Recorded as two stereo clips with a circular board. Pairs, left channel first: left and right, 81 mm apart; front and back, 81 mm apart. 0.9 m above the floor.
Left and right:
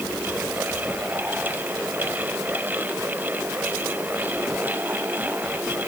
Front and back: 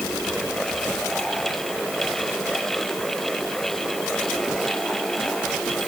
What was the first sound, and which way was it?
Only background noise.